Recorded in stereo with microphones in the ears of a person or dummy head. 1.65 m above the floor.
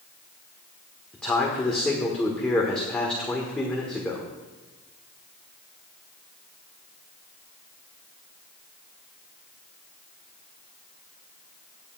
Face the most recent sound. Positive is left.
turn(degrees=10)  # may be behind; listen again after turning